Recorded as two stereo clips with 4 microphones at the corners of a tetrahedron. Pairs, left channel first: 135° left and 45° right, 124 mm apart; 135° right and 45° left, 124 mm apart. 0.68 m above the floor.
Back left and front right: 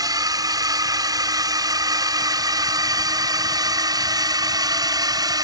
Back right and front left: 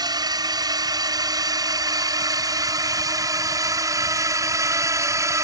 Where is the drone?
Straight ahead; by 5.4 s 5° right.